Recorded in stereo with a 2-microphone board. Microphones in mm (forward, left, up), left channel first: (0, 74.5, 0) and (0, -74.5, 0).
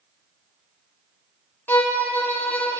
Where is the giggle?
No giggle in this recording.